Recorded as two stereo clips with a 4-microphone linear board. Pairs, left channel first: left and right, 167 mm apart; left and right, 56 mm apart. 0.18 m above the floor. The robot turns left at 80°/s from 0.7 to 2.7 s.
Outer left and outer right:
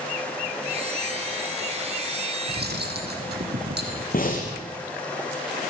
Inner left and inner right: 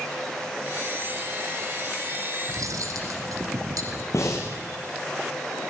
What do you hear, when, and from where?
2.5 s cutlery clinking: 70° right (ahead or behind), 5 m; by 4.0 s 80° right, 5 m
4.1 s breathing: 60° left (ahead or behind), 7 m